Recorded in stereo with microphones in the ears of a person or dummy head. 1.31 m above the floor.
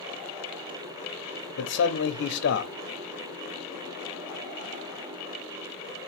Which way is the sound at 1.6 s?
55° left (ahead or behind).